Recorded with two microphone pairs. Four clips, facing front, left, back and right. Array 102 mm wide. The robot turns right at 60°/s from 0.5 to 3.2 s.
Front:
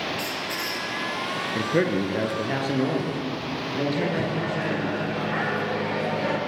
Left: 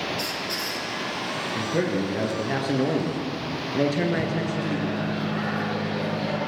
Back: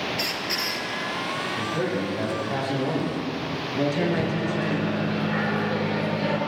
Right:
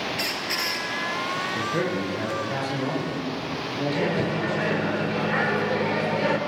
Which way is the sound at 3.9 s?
85° right.